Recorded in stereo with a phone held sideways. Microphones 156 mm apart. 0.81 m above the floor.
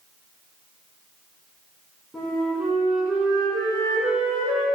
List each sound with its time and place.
2.1 s a flute: 5° right (ahead or behind), 2.5 m